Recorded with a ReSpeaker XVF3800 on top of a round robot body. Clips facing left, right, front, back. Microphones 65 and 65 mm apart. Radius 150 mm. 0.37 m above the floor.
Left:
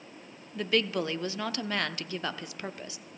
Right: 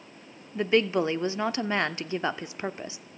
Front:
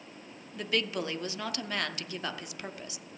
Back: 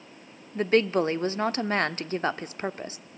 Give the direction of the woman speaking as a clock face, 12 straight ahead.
5 o'clock.